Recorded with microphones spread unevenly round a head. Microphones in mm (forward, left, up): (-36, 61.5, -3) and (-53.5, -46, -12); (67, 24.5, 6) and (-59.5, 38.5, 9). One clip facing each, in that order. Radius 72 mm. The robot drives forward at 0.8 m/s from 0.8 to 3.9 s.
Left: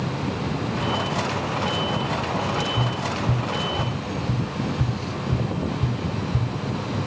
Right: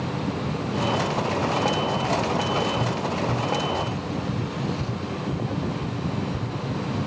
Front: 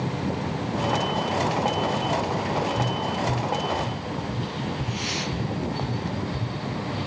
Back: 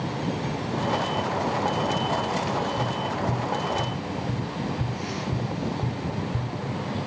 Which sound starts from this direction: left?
Tapping, at 2.8 s.